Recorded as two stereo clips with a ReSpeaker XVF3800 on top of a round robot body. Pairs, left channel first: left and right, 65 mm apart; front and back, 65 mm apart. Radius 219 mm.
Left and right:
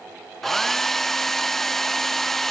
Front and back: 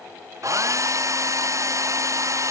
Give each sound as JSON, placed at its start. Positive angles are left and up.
{"t": 0.4, "sound": "a hair dryer", "azimuth_deg": 175}